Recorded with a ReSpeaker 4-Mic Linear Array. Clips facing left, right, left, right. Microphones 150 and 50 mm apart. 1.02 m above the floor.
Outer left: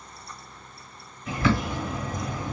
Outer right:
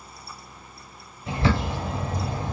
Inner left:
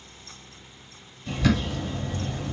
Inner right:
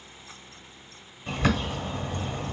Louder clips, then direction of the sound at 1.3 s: Even, inner left 2 dB; 30° right (ahead or behind).